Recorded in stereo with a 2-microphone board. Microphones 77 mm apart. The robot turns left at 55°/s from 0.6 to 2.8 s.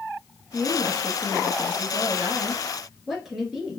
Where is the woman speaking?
50° right, 1.6 m; by 3.8 s 170° right, 1.6 m.